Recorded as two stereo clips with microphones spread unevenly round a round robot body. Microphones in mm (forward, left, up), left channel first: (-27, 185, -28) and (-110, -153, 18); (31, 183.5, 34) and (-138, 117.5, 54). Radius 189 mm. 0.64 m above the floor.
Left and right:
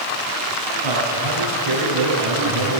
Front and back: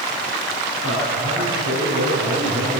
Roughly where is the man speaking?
Behind right.